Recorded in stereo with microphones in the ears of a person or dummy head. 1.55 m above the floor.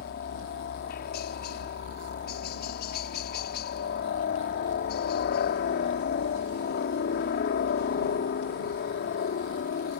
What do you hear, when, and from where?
0.0 s a helicopter: 45° left (ahead or behind)